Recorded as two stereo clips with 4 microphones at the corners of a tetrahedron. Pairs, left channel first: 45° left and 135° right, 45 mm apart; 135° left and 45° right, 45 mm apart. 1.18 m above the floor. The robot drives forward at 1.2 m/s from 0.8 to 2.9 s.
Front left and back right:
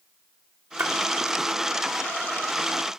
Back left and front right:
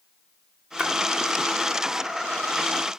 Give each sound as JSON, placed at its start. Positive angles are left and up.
{"t": 0.8, "sound": "a splash", "azimuth_deg": -105, "distance_m": 1.9}